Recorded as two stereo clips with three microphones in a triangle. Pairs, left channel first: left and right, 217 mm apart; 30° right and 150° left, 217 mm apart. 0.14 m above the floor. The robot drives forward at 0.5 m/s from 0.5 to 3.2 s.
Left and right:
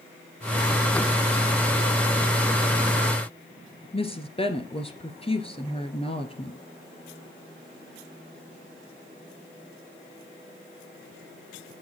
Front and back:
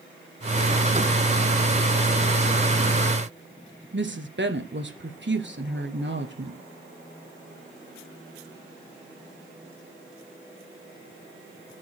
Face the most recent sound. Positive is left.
turn(degrees=150)